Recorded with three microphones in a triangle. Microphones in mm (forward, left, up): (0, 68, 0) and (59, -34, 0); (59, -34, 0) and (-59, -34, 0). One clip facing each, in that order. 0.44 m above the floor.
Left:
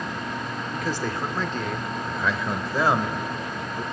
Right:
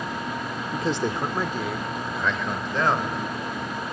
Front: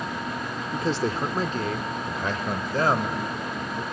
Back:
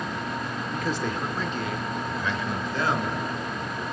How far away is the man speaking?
About 0.8 m.